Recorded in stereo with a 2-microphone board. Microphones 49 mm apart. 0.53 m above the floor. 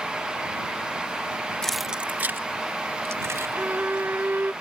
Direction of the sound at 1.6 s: 15° left (ahead or behind).